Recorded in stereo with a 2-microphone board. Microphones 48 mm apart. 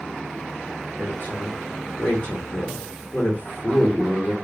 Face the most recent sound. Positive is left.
turn(degrees=45)  # may be behind; listen again after turning